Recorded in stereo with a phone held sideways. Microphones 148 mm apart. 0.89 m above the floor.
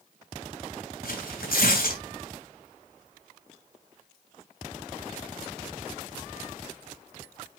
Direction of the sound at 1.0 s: 85° left.